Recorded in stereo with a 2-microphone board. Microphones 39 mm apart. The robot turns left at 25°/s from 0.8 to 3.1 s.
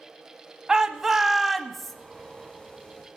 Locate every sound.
0.7 s a shout: 15° right (ahead or behind), 0.9 m; by 1.9 s 10° left (ahead or behind), 0.9 m